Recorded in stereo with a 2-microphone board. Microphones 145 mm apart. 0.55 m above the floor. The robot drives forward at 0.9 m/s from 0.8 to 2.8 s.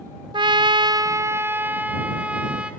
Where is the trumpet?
30° right (ahead or behind), 0.6 m; by 2.7 s 5° right (ahead or behind), 2 m.